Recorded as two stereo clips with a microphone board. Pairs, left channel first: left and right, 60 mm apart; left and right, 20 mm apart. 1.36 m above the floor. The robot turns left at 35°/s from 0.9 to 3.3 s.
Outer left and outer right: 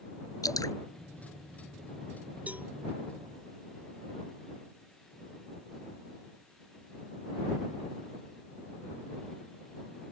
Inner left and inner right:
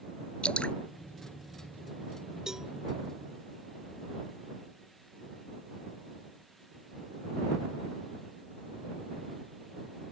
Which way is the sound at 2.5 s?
25° right (ahead or behind).